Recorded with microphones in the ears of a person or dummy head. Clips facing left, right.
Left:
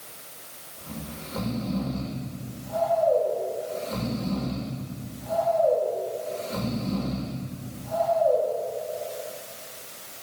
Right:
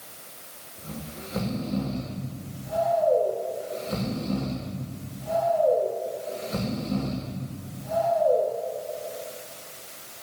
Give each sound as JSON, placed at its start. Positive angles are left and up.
{"t": 0.8, "sound": "snoring", "side_deg": -40, "distance_m": 1.2}